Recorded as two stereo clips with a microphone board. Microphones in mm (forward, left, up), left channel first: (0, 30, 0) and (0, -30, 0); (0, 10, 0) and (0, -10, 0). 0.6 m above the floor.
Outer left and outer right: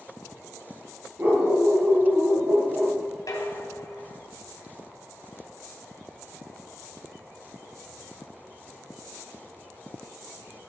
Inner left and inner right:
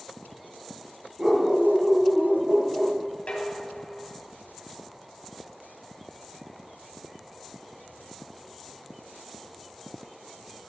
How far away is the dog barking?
About 4 m.